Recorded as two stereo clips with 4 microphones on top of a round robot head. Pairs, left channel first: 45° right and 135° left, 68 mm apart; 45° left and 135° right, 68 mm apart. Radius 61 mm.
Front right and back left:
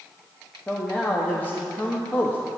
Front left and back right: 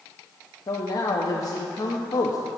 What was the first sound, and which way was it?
A man speaking, 20° left.